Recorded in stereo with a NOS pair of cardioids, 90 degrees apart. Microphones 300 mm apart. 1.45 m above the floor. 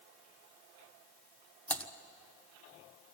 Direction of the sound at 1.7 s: 5° left.